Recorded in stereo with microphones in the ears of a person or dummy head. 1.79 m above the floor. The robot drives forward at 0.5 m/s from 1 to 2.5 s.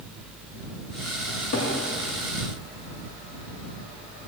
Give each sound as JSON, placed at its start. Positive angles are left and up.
{"t": 1.3, "sound": "a cupboard door", "side_deg": 60, "distance_m": 1.6}